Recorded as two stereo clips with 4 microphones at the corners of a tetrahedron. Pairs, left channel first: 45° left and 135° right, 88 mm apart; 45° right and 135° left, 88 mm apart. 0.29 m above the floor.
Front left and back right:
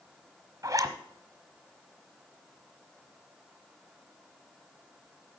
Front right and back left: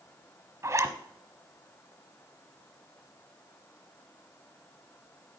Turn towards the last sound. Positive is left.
turn(degrees=-175)